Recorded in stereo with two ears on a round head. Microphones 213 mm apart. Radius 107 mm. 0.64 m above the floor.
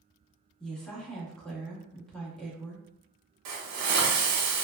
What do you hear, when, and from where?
0.6 s a woman speaking: 5° left (ahead or behind), 0.7 m
3.5 s a hiss: 70° right (ahead or behind), 0.7 m